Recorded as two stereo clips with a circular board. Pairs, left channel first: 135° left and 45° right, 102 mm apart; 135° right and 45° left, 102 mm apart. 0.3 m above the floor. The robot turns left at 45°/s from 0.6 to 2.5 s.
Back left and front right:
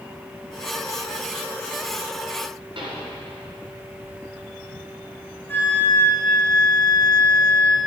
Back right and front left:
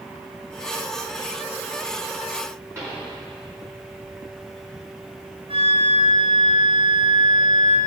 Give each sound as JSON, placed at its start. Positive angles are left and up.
{"t": 2.8, "sound": "a pop", "azimuth_deg": -15, "distance_m": 4.0}
{"t": 5.5, "sound": "a flute", "azimuth_deg": 65, "distance_m": 4.0}